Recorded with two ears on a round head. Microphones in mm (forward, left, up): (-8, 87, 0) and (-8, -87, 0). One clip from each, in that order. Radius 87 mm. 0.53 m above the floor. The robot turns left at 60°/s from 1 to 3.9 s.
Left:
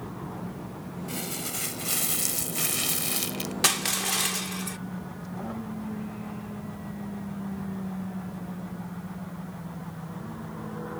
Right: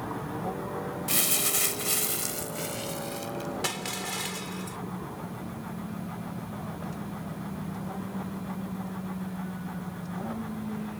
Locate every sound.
1.1 s crumpling: 125° right; by 3.5 s 85° left
3.6 s crushing: 45° left (ahead or behind); by 4.8 s 35° left (ahead or behind)